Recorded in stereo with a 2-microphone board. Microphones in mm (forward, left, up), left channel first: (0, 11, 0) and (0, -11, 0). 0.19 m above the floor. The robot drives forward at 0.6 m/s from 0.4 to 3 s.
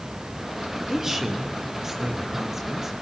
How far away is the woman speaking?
About 4 m.